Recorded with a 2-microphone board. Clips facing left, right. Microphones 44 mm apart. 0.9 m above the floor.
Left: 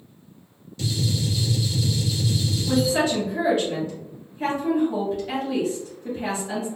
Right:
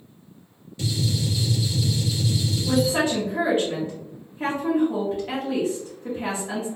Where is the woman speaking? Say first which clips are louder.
Even; 30° right (ahead or behind), 1.1 m.